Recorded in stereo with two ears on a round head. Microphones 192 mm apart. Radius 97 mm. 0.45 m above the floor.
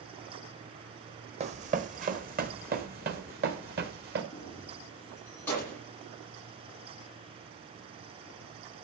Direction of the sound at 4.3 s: 10° left (ahead or behind).